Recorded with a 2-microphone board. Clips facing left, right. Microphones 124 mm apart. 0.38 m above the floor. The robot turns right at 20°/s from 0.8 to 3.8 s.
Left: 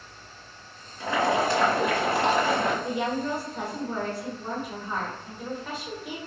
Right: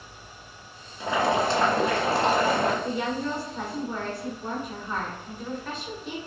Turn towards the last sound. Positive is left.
turn(degrees=10)  # may be behind; listen again after turning